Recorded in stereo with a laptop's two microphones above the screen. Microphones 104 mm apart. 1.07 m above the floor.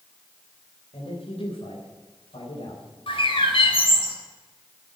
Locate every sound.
0.9 s a man speaking: 75° left (ahead or behind), 4 m
3.1 s a bird: 70° left (ahead or behind), 3.5 m